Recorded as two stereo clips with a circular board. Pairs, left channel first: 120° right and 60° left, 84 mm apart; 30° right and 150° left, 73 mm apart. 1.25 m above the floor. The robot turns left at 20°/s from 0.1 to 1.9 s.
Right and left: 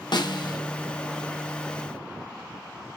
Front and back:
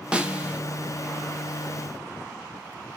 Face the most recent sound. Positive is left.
turn(degrees=-170)